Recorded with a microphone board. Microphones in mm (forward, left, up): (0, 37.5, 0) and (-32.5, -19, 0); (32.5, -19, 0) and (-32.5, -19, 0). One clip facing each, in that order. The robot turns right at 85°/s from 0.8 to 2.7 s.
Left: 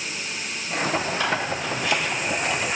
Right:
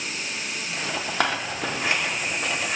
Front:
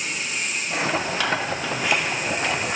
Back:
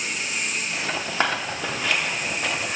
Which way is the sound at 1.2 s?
135° right.